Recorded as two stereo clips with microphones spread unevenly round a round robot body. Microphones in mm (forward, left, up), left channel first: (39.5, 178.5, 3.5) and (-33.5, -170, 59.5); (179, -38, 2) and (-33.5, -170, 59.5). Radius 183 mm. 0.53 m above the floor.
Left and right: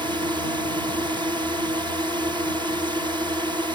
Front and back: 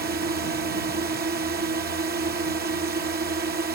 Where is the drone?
175° left.